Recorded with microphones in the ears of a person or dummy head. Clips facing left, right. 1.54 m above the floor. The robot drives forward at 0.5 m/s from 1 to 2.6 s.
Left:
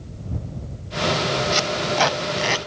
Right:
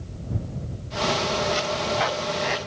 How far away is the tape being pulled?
About 1.3 m.